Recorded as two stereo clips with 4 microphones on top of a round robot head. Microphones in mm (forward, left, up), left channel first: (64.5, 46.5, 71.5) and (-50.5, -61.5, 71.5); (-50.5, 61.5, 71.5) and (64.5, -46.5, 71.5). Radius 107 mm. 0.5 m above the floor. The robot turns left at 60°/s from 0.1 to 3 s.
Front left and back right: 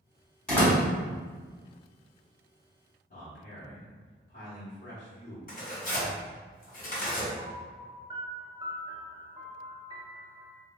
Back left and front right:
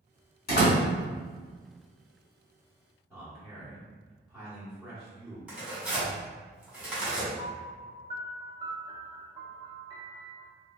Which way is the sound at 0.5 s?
130° left.